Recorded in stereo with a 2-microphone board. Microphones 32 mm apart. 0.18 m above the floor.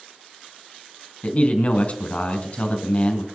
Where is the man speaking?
40° left (ahead or behind), 2 m.